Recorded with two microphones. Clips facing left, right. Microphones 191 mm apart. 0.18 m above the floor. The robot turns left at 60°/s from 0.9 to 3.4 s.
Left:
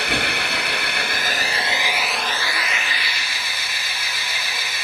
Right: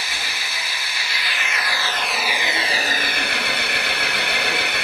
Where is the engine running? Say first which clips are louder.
Left 9 dB; 75° left, 1.5 m; by 4.8 s 75° right, 1.5 m.